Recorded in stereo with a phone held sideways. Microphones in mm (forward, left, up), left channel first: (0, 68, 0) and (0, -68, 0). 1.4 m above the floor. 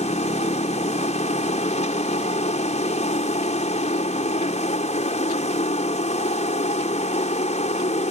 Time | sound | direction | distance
0.0 | a machine running | 55° left (ahead or behind) | ?